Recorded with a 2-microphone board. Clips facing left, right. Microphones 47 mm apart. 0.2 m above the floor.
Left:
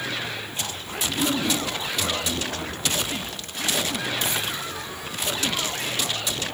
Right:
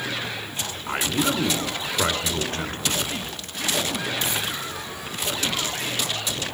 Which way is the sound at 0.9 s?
45° right (ahead or behind).